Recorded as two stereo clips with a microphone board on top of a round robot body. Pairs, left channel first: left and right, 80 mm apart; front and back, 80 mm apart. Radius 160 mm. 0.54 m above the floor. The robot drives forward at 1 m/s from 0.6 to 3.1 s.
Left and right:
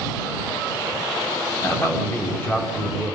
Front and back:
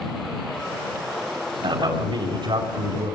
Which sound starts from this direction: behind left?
A man speaking, at 1.6 s.